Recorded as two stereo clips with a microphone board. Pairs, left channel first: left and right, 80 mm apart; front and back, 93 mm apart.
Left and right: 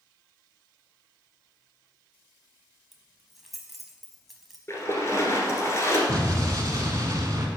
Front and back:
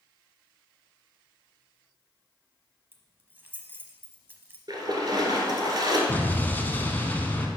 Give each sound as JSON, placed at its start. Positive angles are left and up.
{"t": 2.9, "sound": "keys jangling", "azimuth_deg": -175, "distance_m": 0.8}
{"t": 4.7, "sound": "a splash", "azimuth_deg": 145, "distance_m": 1.4}
{"t": 6.1, "sound": "an explosion", "azimuth_deg": -65, "distance_m": 0.8}